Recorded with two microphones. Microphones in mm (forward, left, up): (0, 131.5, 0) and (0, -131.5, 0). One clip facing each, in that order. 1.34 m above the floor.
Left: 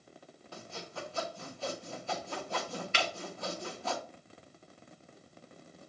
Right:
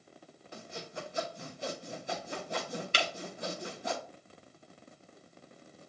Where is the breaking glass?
40° right (ahead or behind), 0.8 m.